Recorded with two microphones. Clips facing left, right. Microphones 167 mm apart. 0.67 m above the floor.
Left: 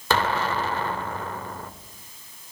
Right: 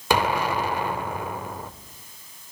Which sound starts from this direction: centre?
An explosion, at 0.1 s.